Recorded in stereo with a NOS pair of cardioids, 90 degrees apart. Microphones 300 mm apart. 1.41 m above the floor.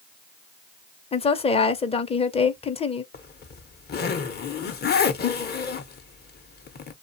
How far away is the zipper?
About 0.7 m.